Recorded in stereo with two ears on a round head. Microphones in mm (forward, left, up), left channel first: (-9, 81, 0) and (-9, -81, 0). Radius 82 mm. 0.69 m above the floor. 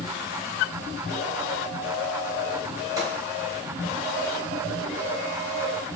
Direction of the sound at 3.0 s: 20° right (ahead or behind).